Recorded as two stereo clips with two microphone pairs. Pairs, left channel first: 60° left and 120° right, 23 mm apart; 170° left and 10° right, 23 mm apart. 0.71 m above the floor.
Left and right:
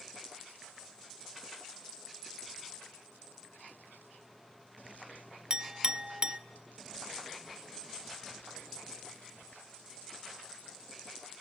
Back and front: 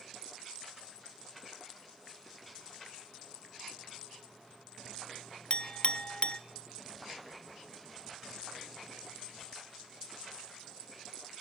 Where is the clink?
165° right, 0.5 m.